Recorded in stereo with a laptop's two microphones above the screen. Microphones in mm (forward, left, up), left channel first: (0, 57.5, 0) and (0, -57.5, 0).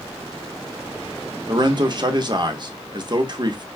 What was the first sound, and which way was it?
A man speaking, 40° right (ahead or behind).